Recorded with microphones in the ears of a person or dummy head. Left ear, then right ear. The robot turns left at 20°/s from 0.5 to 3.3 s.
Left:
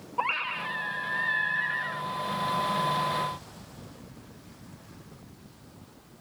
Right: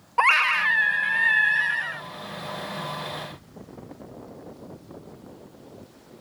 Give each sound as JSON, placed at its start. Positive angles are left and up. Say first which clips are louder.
{"t": 0.2, "sound": "a scream", "louder": "right 10 dB", "azimuth_deg": -115}